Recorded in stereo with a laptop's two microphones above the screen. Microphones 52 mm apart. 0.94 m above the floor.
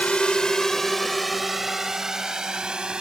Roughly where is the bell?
No bell in this recording.